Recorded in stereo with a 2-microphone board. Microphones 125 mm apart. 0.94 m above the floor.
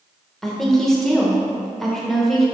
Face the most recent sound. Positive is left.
turn(degrees=5)  # may be behind; listen again after turning